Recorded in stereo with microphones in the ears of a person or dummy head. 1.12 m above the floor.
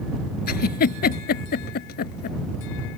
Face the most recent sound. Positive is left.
turn(degrees=45)  # may be behind; listen again after turning